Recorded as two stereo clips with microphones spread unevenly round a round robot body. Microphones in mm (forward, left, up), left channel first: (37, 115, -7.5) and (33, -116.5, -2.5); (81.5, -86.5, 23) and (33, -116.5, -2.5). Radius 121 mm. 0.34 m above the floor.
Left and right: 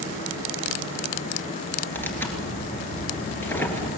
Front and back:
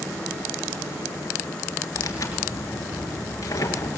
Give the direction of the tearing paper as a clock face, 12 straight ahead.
12 o'clock.